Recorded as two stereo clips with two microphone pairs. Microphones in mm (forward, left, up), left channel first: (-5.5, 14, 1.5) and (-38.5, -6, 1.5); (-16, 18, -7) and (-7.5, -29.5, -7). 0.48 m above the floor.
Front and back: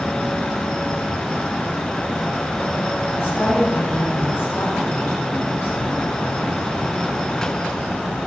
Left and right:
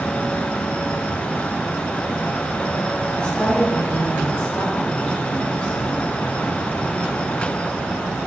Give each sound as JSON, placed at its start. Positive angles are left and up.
{"t": 3.2, "sound": "a woman speaking", "azimuth_deg": 30, "distance_m": 3.5}